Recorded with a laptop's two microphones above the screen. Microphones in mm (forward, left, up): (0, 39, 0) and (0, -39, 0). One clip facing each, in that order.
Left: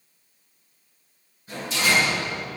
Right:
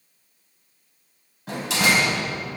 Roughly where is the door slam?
Right.